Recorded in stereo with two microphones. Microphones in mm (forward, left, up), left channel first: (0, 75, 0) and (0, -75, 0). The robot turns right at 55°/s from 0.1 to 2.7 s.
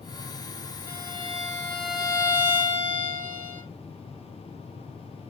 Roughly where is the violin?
Behind.